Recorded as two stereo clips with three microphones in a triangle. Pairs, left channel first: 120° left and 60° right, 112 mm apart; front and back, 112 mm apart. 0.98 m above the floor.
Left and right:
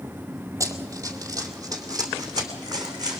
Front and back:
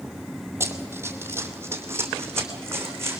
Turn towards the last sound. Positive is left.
turn(degrees=-115)